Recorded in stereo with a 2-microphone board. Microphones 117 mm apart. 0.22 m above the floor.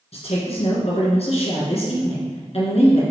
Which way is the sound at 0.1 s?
60° left (ahead or behind).